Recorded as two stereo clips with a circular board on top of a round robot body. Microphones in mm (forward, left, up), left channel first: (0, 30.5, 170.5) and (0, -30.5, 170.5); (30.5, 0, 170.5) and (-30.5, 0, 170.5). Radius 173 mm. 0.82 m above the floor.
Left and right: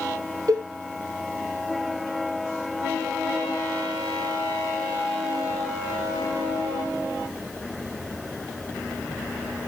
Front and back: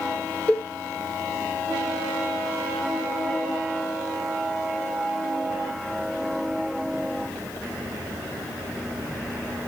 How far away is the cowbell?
About 1.0 m.